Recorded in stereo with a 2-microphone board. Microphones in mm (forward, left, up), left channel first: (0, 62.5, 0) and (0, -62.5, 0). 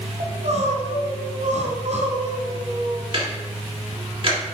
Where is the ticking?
45° right (ahead or behind), 1.6 m.